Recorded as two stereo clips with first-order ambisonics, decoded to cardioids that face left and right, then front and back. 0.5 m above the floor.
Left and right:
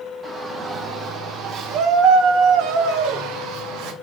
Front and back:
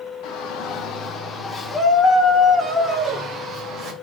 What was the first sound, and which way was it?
A shout, 15° right.